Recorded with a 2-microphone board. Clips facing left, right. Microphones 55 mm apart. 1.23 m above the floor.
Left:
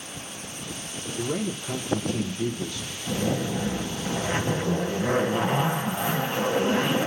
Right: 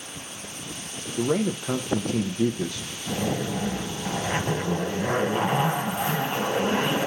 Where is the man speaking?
70° right (ahead or behind), 0.5 m.